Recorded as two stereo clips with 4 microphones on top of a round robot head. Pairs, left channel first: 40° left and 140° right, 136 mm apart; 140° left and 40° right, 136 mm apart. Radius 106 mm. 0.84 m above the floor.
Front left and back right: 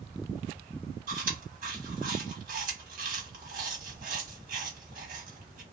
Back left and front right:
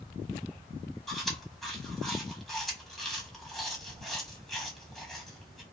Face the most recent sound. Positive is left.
turn(degrees=-130)